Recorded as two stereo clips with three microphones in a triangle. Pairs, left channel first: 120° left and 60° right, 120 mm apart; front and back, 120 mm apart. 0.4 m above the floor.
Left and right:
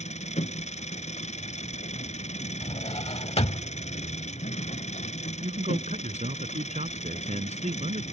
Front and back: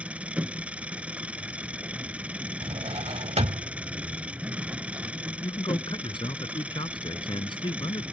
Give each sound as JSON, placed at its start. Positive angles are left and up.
{"t": 0.0, "sound": "an engine running", "azimuth_deg": 100}
{"t": 2.6, "sound": "a drawer", "azimuth_deg": 150}
{"t": 5.4, "sound": "a man speaking", "azimuth_deg": -45}